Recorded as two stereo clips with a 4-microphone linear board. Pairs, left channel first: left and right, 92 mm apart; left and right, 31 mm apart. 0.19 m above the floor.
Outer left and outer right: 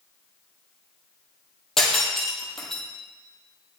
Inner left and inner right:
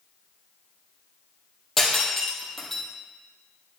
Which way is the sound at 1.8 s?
5° left (ahead or behind).